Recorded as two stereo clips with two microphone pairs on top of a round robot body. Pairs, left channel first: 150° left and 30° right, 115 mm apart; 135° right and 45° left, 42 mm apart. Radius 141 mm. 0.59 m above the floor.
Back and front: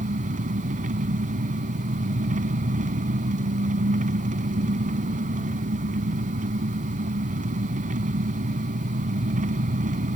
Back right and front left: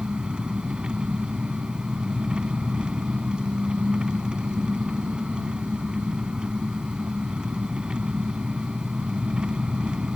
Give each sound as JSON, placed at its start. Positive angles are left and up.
{"t": 0.0, "sound": "an engine running", "azimuth_deg": -25}